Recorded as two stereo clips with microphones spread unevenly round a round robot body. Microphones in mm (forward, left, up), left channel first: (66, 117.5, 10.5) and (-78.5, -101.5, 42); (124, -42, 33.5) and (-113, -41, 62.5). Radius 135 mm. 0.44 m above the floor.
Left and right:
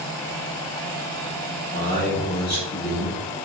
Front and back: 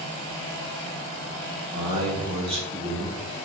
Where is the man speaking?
115° left, 2.5 m; by 3.2 s 105° left, 4 m.